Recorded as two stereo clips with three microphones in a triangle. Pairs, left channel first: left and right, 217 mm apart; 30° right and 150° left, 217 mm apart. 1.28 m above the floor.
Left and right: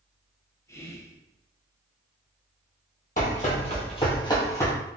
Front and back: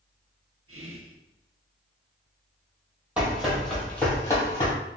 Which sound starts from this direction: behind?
Whispering, at 0.7 s.